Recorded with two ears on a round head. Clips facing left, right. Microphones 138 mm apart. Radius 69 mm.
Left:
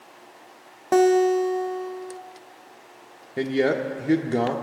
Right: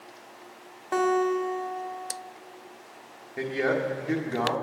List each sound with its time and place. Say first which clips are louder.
0.9 s a guitar: left 7 dB; 50° left (ahead or behind), 1.0 m
3.4 s a man speaking: left 4 dB; 35° left (ahead or behind), 1.4 m